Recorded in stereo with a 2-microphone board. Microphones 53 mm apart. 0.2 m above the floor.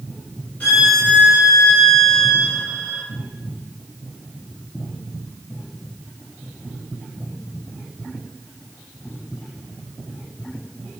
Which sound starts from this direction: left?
A violin, at 0.6 s.